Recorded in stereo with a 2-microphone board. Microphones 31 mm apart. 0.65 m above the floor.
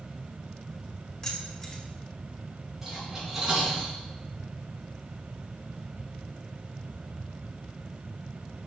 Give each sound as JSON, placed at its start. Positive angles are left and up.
{"t": 1.2, "sound": "keys jangling", "side_deg": 30, "distance_m": 1.9}
{"t": 2.8, "sound": "cutlery clinking", "side_deg": -10, "distance_m": 3.5}